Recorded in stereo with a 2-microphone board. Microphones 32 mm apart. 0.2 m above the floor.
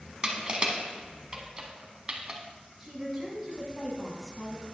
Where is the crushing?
30° right (ahead or behind), 0.9 m.